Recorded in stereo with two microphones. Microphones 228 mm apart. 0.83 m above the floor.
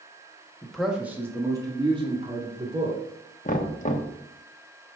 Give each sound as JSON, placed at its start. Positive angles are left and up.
{"t": 0.6, "sound": "a man speaking", "side_deg": 5, "distance_m": 1.5}
{"t": 3.5, "sound": "knocking", "side_deg": 35, "distance_m": 1.0}